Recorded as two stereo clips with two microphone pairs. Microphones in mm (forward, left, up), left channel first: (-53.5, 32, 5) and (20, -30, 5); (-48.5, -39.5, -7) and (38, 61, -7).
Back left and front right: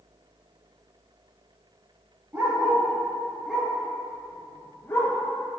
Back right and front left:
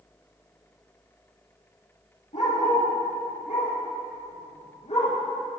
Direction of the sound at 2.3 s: 105° right.